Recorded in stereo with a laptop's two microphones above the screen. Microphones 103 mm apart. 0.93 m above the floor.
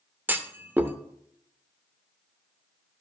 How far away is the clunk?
About 0.6 m.